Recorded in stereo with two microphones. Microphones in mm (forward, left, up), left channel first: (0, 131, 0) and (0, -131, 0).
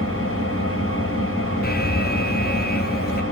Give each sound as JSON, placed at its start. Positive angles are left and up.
{"t": 0.0, "sound": "an engine running", "side_deg": 60, "distance_m": 8.0}
{"t": 1.6, "sound": "an alarm", "side_deg": 40, "distance_m": 0.6}